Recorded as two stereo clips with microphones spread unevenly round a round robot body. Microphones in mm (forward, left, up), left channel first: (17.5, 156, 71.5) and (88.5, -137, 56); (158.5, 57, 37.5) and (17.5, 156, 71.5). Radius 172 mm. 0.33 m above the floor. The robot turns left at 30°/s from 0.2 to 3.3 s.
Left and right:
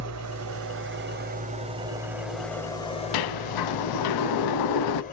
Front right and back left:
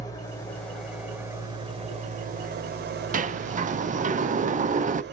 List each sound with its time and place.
0.0 s an engine running: 100° right, 0.8 m; by 5.1 s 165° left, 0.8 m
3.1 s a sliding door: 100° left, 0.7 m; by 5.0 s 95° left, 0.7 m